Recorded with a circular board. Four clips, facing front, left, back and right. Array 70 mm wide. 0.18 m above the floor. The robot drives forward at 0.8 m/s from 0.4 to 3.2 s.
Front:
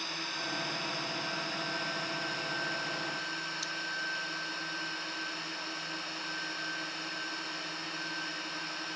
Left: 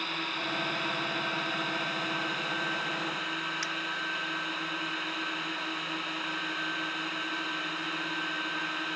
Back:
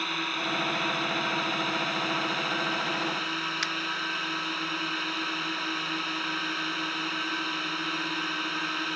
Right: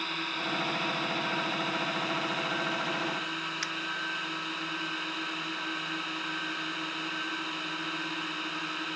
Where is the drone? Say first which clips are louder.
Even, back 8 dB; straight behind.